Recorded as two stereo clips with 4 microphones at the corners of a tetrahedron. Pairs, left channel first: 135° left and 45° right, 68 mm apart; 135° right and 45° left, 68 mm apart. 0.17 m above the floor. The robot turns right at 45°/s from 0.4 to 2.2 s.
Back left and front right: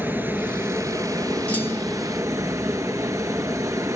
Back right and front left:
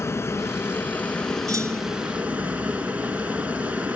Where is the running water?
100° right, 2.5 m; by 4.0 s 20° right, 2.5 m.